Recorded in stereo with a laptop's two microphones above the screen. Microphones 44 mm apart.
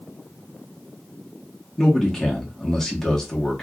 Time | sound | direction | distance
1.8 | a man speaking | 10° left (ahead or behind) | 1.6 m